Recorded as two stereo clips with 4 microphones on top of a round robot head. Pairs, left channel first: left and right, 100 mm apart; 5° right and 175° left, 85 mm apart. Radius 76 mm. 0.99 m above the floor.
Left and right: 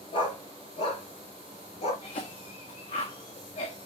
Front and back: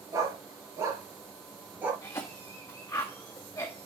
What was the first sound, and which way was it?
A dog barking, 125° left.